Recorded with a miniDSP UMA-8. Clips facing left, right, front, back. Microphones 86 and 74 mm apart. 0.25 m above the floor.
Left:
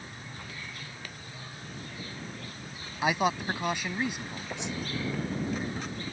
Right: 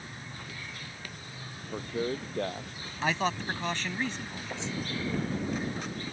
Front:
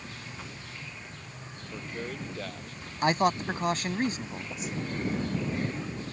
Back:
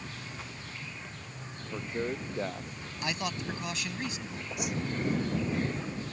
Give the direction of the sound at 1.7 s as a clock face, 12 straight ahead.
4 o'clock.